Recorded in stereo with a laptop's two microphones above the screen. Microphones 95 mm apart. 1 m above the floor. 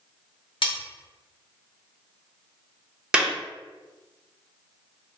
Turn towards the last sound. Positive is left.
turn(degrees=-10)  # may be behind; listen again after turning